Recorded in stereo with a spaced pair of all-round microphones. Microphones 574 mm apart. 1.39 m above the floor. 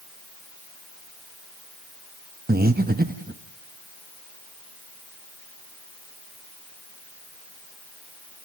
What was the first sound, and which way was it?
Breathing, 15° right (ahead or behind).